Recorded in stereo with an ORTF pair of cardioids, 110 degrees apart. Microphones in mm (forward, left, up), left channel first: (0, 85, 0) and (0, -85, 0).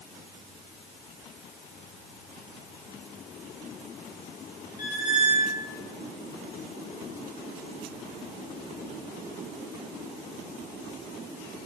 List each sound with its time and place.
4.8 s a squeak: 45° left, 1.6 m